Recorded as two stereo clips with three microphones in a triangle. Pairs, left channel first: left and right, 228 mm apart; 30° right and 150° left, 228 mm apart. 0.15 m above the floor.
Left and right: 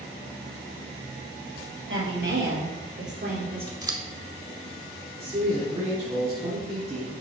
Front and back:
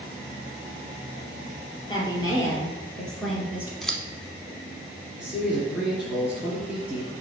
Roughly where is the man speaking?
Behind right.